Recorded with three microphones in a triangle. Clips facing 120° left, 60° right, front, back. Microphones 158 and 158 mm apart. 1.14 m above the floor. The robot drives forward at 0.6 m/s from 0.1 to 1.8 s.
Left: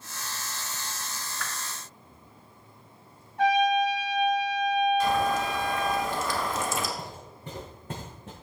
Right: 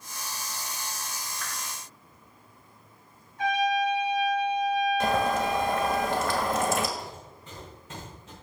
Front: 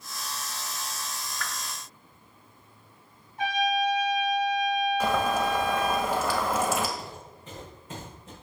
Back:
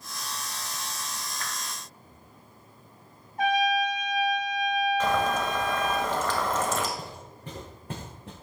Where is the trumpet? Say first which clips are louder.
Left 3 dB, back 2 dB; 140° left, 5.5 m.